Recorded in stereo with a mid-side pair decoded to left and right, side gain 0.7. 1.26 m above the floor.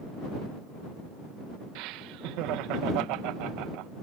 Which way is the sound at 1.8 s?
65° right.